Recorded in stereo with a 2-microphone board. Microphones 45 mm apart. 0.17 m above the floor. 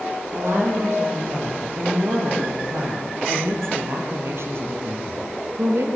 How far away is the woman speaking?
About 8 m.